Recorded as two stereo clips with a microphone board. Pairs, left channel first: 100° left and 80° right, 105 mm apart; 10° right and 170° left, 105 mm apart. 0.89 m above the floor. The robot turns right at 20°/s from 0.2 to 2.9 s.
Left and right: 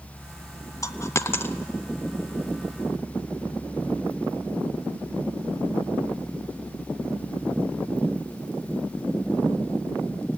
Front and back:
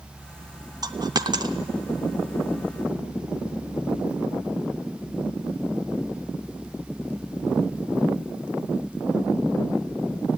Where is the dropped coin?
145° left, 0.6 m; by 1.6 s 160° left, 0.6 m.